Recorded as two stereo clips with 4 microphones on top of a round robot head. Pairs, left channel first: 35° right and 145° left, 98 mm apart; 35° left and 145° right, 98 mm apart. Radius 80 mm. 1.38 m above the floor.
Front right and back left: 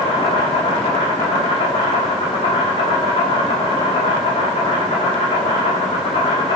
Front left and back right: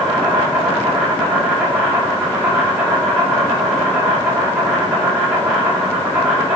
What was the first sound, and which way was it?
An insect, 70° right.